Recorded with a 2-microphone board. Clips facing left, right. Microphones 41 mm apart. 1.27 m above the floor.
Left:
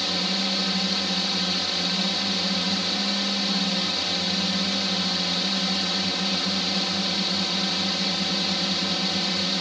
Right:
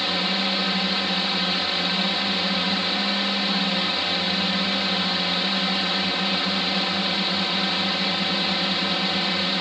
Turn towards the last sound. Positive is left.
turn(degrees=-25)  # may be behind; listen again after turning